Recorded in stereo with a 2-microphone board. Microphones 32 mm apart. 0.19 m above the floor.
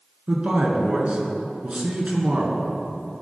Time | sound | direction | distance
0.3 | a man speaking | 45° right (ahead or behind) | 1.8 m